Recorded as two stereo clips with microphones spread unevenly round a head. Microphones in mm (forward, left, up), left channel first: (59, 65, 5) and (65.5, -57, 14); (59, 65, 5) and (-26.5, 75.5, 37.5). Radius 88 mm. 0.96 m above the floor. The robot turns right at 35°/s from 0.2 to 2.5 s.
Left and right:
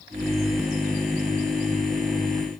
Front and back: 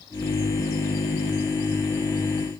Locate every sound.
Only background noise.